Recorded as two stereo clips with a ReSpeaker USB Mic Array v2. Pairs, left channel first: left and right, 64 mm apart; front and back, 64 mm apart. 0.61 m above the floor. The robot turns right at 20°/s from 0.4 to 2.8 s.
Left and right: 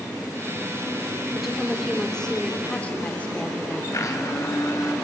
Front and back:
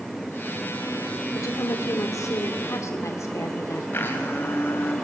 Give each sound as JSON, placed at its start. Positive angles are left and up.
{"t": 1.4, "sound": "a woman speaking", "azimuth_deg": -5, "distance_m": 2.0}
{"t": 3.9, "sound": "a blender", "azimuth_deg": 55, "distance_m": 3.5}